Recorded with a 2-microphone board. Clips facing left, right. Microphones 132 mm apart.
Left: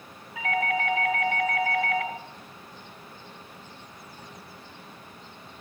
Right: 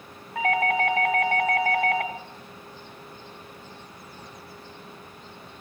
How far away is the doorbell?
About 2 m.